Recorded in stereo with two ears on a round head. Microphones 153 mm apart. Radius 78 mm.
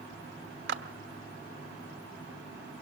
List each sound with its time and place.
0.7 s a clap: 70° right (ahead or behind), 1.2 m